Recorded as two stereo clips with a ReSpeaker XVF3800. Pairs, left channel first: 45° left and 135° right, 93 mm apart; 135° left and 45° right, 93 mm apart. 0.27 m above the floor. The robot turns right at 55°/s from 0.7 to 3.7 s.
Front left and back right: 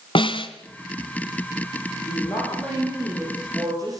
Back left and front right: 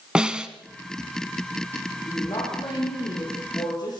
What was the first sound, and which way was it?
A snare drum, 35° left.